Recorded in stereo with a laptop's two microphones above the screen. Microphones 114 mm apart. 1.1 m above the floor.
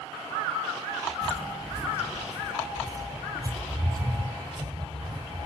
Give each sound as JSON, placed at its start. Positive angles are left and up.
{"t": 1.2, "sound": "footsteps", "side_deg": 5, "distance_m": 1.2}